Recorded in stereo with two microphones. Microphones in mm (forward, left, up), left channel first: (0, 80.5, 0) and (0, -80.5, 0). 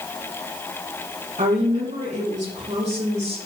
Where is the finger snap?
No finger snap in this recording.